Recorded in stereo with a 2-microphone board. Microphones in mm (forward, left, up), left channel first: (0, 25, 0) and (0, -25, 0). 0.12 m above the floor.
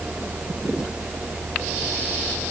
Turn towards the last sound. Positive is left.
No sound to turn to.